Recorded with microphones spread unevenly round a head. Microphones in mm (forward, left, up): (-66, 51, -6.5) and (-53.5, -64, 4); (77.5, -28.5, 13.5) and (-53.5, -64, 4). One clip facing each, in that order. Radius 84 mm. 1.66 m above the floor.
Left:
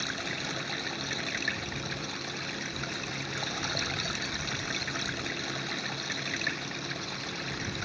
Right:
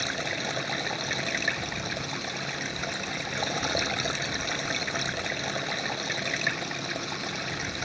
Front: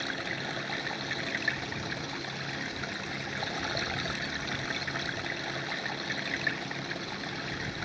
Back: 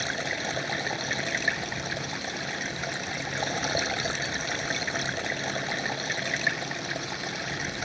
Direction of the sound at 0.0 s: 120° right.